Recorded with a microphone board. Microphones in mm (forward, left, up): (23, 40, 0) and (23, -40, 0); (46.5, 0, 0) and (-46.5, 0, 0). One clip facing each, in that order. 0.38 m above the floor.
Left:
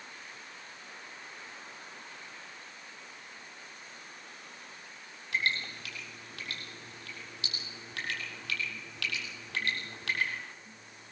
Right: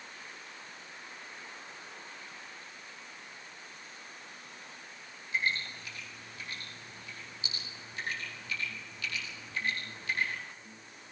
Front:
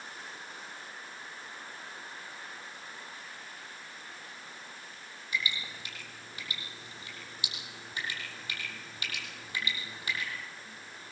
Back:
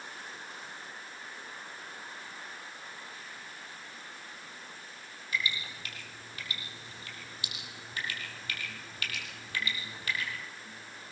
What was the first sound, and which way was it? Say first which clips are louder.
Dripping: even, back 1 dB; 70° left.